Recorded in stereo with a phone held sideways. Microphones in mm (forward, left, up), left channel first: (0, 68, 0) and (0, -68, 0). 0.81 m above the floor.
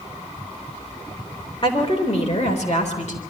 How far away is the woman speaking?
About 3.5 m.